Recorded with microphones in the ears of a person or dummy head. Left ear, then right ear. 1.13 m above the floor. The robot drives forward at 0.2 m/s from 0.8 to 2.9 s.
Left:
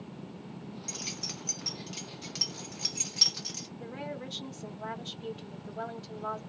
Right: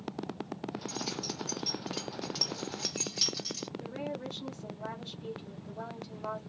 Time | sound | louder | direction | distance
0.9 | keys jangling | left 2 dB | 35° left (ahead or behind) | 0.7 m
3.8 | a woman speaking | right 1 dB | 60° left (ahead or behind) | 0.9 m